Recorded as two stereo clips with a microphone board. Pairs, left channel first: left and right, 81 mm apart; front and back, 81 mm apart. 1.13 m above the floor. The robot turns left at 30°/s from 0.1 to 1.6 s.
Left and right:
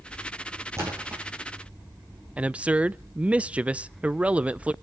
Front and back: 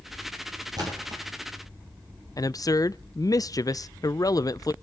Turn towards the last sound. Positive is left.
turn(degrees=-20)